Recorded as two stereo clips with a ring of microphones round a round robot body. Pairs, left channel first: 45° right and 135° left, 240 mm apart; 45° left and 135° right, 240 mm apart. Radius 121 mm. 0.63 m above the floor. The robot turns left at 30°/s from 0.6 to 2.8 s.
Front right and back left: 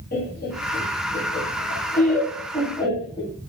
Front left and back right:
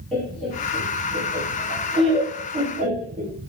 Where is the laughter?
40° right, 0.9 m; by 3.3 s 105° right, 0.9 m.